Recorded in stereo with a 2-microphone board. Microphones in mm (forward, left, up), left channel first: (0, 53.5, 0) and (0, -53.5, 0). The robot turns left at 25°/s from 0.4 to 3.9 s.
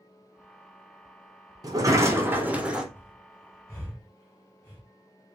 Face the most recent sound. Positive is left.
turn(degrees=35)  # may be behind; listen again after turning